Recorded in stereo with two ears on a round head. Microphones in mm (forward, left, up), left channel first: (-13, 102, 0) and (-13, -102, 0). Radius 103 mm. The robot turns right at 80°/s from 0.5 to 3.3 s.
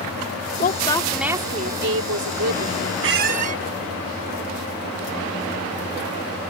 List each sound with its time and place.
0.6 s a woman speaking: 135° left; by 2.9 s 40° right
3.0 s a squeak: 55° right (ahead or behind); by 3.6 s 35° right (ahead or behind)